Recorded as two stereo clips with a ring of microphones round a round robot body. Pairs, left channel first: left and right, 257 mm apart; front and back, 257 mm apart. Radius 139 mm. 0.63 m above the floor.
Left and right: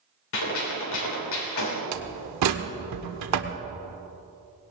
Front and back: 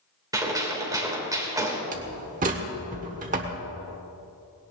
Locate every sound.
0.3 s a gunshot: 105° left, 3 m
1.9 s a door slam: 115° right, 1.1 m